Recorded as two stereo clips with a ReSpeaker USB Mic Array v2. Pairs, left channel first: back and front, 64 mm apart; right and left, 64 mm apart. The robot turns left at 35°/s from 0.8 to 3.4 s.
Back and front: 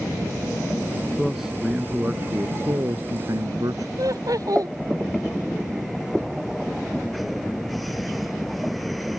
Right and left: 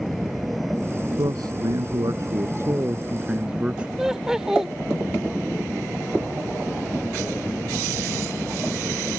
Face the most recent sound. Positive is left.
turn(degrees=5)